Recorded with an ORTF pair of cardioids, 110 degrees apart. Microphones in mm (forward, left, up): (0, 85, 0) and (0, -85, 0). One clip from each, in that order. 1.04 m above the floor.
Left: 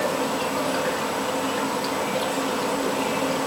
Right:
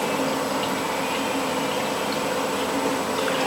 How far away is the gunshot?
I don't hear a gunshot.